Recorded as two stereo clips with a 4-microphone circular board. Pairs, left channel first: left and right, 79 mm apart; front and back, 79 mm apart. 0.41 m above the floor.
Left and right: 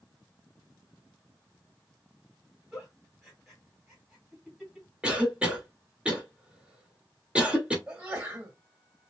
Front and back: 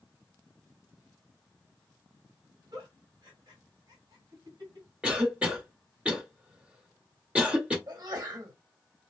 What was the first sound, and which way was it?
A giggle, 175° right.